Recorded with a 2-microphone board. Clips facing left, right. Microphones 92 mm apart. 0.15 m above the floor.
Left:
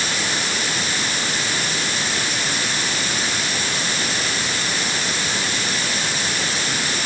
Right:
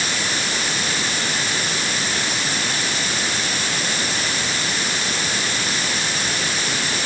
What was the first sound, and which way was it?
Only background noise.